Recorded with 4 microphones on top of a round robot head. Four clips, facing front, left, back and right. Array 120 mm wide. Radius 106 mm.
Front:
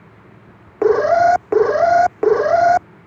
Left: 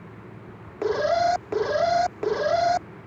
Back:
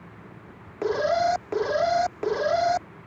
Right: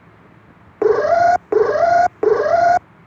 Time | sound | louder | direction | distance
0.8 | an alarm | right 9 dB, front 10 dB | 45° right | ?